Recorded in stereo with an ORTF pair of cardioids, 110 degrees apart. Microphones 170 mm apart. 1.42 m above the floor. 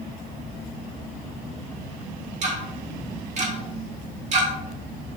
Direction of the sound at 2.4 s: 45° right.